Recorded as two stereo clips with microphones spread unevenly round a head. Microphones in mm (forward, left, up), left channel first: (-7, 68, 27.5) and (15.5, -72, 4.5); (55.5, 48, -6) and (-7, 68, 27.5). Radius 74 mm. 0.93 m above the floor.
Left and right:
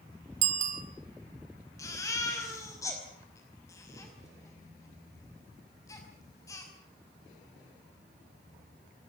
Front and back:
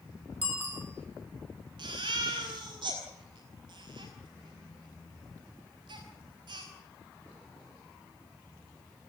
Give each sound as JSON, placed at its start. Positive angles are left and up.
{"t": 0.4, "sound": "a bicycle bell", "azimuth_deg": -120, "distance_m": 2.5}
{"t": 1.8, "sound": "a baby crying", "azimuth_deg": 170, "distance_m": 5.5}